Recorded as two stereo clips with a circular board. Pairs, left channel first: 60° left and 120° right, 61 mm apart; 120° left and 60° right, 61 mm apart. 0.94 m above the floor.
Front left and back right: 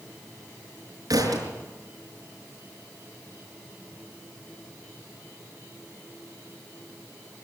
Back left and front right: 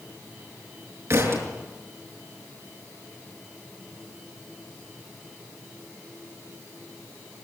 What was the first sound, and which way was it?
A thud, 100° right.